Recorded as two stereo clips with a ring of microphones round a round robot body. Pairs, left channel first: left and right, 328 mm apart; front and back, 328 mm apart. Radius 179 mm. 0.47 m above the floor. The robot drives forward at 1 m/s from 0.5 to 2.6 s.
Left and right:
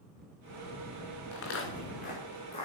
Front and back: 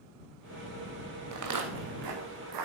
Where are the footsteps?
140° left, 2.5 m; by 2.7 s 165° left, 4.5 m.